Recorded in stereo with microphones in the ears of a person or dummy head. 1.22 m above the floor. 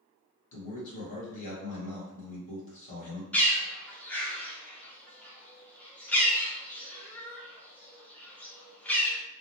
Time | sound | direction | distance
0.5 | a man speaking | 45° left (ahead or behind) | 1.4 m
3.3 | a bird | 10° left (ahead or behind) | 0.5 m